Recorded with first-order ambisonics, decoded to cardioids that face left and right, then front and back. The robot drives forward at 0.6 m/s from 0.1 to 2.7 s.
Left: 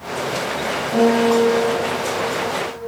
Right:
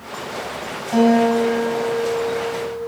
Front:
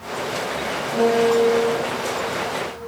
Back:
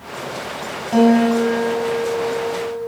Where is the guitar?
150° right, 8 m.